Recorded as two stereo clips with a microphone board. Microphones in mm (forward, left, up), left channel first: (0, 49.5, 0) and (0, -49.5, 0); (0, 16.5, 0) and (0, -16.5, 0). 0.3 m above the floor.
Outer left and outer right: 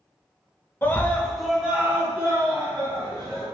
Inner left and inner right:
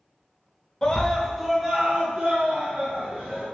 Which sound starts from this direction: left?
A scream, at 0.8 s.